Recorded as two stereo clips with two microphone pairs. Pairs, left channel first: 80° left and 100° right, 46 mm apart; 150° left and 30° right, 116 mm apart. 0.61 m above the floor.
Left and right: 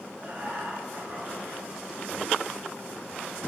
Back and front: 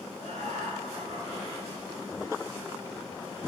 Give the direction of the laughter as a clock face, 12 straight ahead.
1 o'clock.